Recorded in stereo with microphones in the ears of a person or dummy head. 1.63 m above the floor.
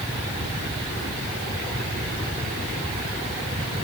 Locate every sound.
Only background noise.